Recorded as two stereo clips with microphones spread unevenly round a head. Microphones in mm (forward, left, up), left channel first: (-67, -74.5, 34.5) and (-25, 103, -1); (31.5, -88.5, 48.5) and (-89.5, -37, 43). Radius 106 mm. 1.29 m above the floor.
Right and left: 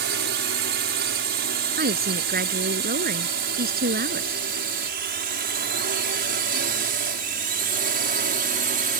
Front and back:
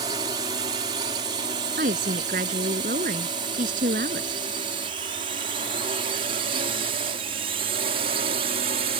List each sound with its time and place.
0.0 s a drone: 95° left; by 9.0 s 110° left
1.8 s a woman speaking: 115° left